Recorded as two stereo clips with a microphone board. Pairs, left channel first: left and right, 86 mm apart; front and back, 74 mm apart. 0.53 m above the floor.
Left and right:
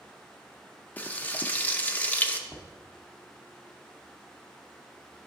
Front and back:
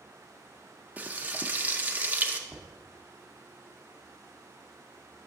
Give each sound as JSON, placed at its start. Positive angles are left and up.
{"t": 1.0, "sound": "frying", "azimuth_deg": 140, "distance_m": 0.5}
{"t": 2.5, "sound": "knocking", "azimuth_deg": 155, "distance_m": 0.8}